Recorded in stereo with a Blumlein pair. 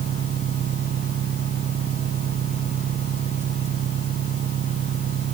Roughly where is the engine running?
Ahead right.